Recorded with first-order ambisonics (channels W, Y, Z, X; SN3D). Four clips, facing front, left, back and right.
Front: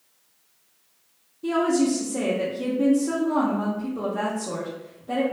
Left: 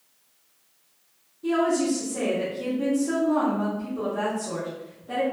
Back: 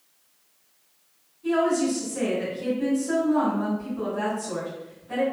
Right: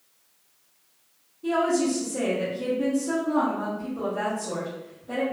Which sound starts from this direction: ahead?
A woman speaking, at 1.4 s.